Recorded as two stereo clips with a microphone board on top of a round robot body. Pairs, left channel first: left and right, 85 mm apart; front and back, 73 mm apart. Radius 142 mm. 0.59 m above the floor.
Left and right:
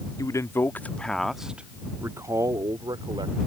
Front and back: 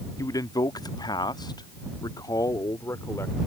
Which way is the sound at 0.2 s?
40° left.